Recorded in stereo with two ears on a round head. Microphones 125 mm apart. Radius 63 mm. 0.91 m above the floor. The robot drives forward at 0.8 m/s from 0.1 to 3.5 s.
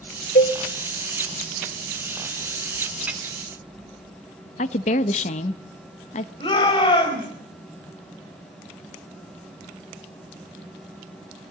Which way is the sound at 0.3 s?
60° left (ahead or behind).